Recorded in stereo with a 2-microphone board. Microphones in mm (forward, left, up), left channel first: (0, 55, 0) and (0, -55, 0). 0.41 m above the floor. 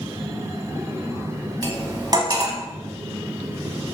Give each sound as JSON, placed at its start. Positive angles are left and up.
{"t": 1.6, "sound": "cutlery clinking", "side_deg": -35, "distance_m": 1.6}